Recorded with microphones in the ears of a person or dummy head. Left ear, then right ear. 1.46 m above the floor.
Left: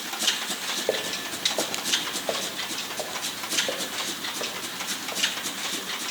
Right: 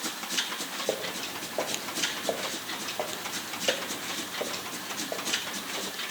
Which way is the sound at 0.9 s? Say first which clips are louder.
Left 2 dB; 10° left (ahead or behind).